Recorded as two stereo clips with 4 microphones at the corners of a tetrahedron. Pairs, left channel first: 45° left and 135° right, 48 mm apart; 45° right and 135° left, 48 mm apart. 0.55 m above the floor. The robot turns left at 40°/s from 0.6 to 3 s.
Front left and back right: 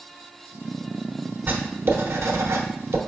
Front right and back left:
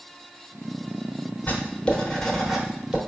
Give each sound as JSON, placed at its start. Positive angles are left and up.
{"t": 1.5, "sound": "writing", "azimuth_deg": -90, "distance_m": 0.8}